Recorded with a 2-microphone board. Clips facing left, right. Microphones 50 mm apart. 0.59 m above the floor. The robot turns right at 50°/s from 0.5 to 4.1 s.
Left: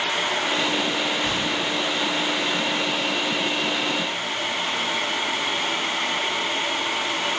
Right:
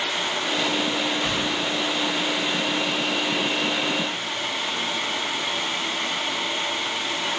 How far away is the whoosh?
About 1.4 m.